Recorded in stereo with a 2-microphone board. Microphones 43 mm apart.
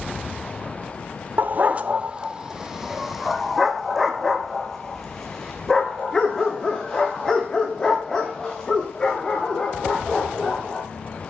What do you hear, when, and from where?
1.4 s a dog barking: 45° right (ahead or behind), 0.8 m; by 10.8 s 15° left (ahead or behind), 5.5 m